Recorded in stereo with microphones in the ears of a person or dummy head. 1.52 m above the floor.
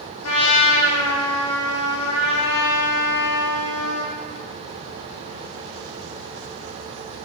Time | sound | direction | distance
0.2 | a trumpet | 85° left | 1.6 m